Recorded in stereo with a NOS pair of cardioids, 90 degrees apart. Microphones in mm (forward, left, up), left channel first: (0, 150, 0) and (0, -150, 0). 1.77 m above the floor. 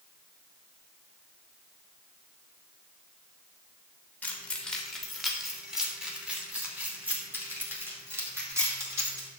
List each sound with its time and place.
4.2 s keys jangling: 5° left, 2 m; by 9.3 s 10° right, 4.5 m